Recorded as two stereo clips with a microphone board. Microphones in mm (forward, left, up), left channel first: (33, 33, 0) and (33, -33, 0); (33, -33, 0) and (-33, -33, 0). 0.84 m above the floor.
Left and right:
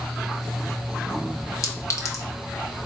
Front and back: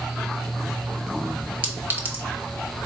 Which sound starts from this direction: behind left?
A clink, at 1.6 s.